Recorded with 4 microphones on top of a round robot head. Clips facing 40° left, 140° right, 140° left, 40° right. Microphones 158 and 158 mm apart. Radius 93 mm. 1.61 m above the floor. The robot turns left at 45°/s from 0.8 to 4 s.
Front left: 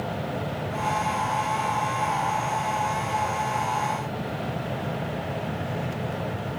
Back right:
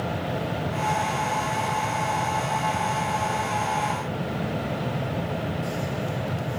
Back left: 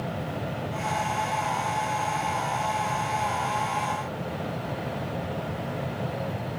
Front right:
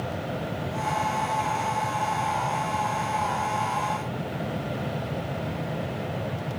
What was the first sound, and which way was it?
Only background noise.